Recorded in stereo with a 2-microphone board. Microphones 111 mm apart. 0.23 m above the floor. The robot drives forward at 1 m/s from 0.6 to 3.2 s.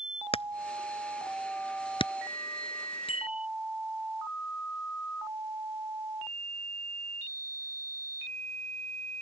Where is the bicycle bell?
75° left (ahead or behind).